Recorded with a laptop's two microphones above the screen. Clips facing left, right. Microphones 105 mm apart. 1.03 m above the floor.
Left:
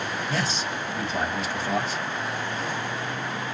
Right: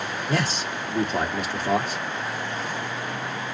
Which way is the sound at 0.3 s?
55° right (ahead or behind).